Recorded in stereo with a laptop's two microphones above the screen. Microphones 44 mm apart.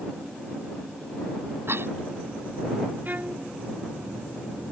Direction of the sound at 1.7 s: 65° right (ahead or behind).